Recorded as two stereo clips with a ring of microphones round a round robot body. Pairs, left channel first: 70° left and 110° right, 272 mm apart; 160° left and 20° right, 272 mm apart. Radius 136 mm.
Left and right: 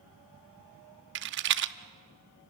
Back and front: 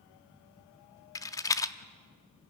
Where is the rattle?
130° right, 0.7 m.